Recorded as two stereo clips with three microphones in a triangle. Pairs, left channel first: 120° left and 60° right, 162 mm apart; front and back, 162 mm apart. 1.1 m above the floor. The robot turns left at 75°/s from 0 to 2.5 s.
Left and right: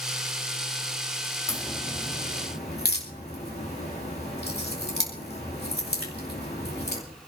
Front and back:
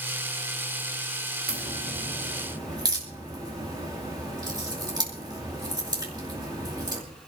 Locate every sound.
1.5 s a crack: 165° right, 2.5 m; by 7.0 s 115° left, 2.5 m